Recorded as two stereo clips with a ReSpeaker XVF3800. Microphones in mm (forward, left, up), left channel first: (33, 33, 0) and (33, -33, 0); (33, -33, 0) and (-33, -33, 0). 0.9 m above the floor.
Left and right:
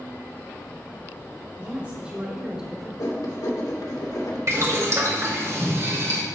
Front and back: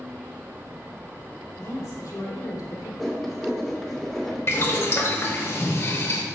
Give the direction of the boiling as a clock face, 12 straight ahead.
2 o'clock.